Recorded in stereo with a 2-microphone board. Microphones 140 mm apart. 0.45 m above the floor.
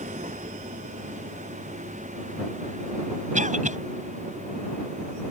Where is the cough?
65° right (ahead or behind).